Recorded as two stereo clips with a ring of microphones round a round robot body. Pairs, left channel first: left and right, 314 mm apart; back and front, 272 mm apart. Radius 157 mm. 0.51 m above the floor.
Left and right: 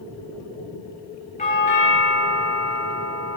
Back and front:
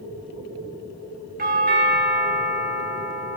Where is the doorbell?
35° left, 1.7 m.